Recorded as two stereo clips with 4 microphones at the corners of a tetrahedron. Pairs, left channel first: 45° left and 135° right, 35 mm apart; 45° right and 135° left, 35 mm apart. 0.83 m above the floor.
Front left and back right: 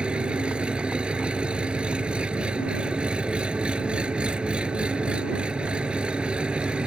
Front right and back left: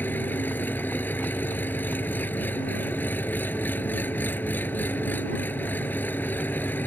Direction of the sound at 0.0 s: 75° right.